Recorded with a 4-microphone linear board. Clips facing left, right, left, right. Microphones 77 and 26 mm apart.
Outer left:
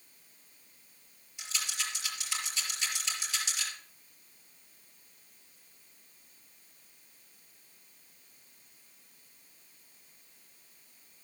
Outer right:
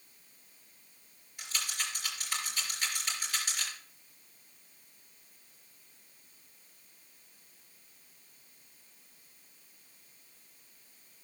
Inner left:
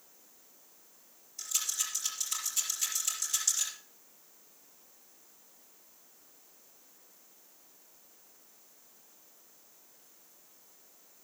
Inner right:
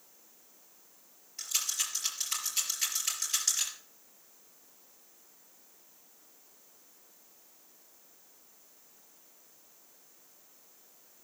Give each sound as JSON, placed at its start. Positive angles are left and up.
{"t": 1.4, "sound": "a rattle", "side_deg": -50, "distance_m": 5.0}